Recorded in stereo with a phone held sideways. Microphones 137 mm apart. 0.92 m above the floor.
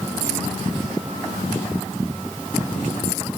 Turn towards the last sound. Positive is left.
No sound to turn to.